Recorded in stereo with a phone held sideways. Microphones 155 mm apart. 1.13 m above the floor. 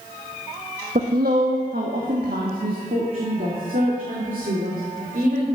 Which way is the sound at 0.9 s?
75° right (ahead or behind).